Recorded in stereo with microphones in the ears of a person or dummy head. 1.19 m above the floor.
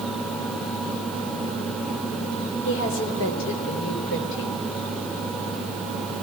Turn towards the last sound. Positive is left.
turn(degrees=70)  # may be behind; listen again after turning